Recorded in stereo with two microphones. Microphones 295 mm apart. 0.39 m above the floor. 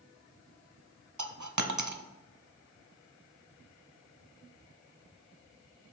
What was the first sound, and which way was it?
A dropped coin, 75° right (ahead or behind).